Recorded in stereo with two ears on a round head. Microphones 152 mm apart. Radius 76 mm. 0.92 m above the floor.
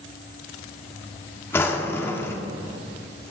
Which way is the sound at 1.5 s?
15° left (ahead or behind).